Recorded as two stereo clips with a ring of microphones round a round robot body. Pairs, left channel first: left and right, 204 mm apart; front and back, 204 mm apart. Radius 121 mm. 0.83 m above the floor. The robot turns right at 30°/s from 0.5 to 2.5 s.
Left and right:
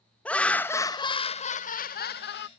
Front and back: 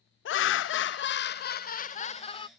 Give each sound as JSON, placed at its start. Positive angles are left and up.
{"t": 0.2, "sound": "laughter", "azimuth_deg": 5}